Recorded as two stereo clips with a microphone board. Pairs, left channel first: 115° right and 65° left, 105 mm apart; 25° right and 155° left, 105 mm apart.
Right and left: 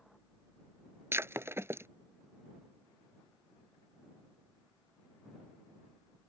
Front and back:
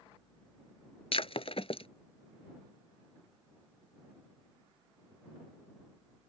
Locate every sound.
1.1 s breaking glass: straight ahead